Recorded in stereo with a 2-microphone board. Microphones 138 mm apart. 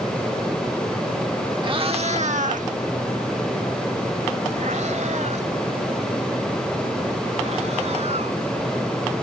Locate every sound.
1.6 s a cat meowing: 35° right (ahead or behind); by 8.4 s 50° right (ahead or behind)